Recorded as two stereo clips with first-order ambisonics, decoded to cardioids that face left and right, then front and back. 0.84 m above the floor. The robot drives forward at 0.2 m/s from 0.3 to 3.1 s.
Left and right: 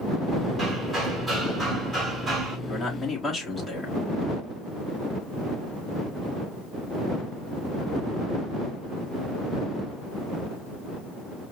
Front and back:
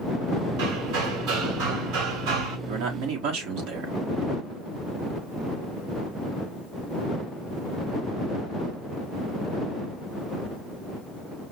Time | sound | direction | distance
0.6 | hammering | 165° right | 2 m
2.7 | a man speaking | 170° left | 1.4 m